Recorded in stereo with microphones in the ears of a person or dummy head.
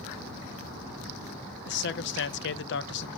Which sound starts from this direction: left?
A man speaking, at 1.7 s.